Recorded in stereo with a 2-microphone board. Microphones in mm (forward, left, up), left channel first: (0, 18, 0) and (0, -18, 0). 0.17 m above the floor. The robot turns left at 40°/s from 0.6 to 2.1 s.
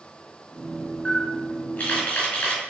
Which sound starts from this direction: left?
A camera shutter, at 1.1 s.